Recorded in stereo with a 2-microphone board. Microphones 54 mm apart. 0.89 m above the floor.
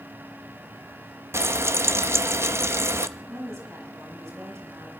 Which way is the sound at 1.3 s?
50° right (ahead or behind).